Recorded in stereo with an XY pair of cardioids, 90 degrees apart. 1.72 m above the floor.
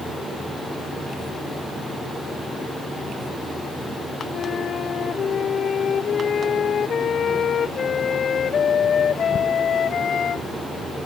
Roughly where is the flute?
Ahead left.